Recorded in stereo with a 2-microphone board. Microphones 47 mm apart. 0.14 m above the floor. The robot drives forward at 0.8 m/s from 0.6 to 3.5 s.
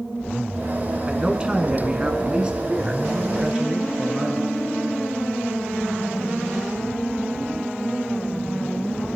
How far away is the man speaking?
About 1.7 m.